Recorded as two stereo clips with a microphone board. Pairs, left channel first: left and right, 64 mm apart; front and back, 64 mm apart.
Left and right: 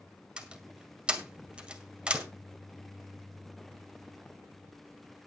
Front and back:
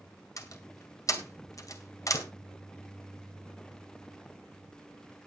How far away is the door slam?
About 1.9 m.